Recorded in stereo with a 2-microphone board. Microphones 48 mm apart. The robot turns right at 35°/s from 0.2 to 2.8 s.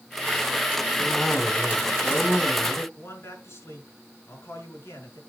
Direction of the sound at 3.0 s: 70° left (ahead or behind).